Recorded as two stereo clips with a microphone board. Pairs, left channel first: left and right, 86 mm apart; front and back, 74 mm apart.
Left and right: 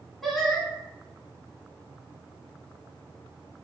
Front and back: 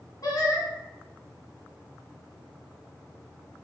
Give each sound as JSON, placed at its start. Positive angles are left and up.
{"t": 0.2, "sound": "singing", "azimuth_deg": 0, "distance_m": 0.8}